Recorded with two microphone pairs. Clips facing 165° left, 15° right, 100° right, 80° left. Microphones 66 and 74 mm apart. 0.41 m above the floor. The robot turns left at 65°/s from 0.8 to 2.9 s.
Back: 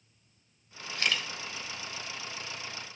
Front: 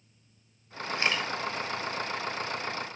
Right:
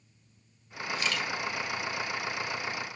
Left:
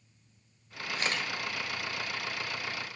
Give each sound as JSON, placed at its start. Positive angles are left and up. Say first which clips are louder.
{"t": 0.9, "sound": "a camera shutter", "louder": "front 3 dB, right 1 dB", "azimuth_deg": 50, "distance_m": 2.0}